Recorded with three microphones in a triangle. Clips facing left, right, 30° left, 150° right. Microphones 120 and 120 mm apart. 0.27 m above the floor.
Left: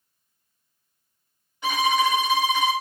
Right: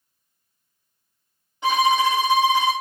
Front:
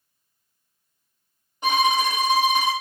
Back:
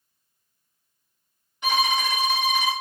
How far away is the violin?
About 2.5 m.